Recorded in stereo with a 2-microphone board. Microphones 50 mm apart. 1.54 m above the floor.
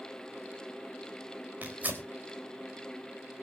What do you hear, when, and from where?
1.6 s tearing paper: 35° right (ahead or behind), 3.5 m